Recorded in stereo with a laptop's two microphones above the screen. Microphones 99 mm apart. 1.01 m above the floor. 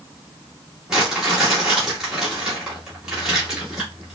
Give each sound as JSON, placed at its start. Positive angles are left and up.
{"t": 0.9, "sound": "crumpling", "side_deg": -5, "distance_m": 1.4}